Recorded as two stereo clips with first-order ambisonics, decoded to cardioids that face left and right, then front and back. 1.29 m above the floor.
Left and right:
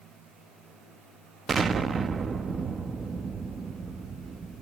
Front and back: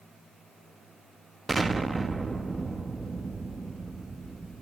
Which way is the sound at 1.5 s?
120° right.